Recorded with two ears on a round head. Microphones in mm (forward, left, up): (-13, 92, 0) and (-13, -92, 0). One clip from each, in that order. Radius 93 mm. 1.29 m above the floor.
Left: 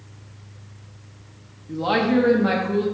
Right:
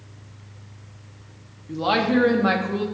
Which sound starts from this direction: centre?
A woman speaking, at 1.7 s.